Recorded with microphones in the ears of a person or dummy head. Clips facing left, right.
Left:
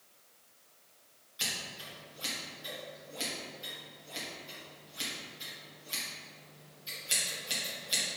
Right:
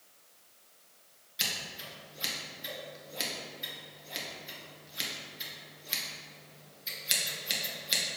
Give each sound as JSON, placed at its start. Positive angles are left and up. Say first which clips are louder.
{"t": 1.4, "sound": "scissors", "louder": "right 1 dB", "side_deg": -25, "distance_m": 1.6}